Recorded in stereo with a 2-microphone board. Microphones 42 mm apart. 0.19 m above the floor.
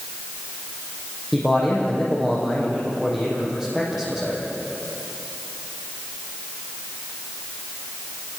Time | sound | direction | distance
1.3 | a man speaking | 10° right (ahead or behind) | 7 m